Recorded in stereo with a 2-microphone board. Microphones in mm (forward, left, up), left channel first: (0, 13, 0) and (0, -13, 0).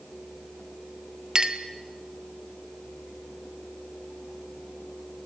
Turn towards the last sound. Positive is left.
turn(degrees=-25)  # may be behind; listen again after turning